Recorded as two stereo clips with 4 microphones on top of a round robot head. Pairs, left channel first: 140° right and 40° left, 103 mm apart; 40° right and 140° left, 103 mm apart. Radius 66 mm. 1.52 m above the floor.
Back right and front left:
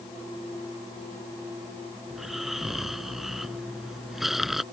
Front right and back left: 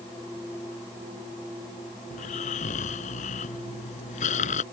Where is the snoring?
45° right.